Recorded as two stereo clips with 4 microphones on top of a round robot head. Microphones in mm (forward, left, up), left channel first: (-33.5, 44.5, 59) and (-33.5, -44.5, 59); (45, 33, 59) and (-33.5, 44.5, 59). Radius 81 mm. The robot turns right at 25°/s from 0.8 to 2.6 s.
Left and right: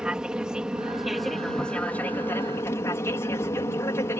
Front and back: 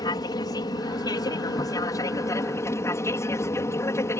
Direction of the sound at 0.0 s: 10° right.